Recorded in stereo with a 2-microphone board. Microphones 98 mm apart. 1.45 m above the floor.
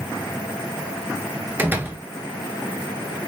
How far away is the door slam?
About 0.7 m.